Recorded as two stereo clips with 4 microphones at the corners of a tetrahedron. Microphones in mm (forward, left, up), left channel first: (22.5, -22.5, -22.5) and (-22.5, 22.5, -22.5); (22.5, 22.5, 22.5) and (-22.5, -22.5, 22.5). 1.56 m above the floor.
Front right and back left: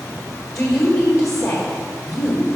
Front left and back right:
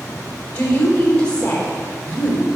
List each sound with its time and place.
0.6 s a woman speaking: 20° right, 2.5 m